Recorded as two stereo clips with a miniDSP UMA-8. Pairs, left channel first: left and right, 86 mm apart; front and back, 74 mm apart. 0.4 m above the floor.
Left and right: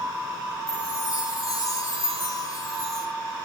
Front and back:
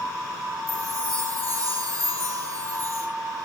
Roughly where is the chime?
Behind left.